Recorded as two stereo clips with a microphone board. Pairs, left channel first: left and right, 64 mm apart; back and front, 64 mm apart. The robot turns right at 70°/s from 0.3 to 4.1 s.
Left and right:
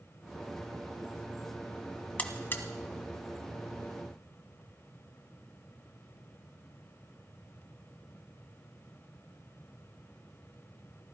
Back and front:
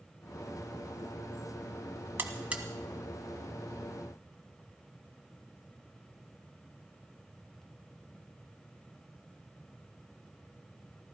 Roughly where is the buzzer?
Ahead left.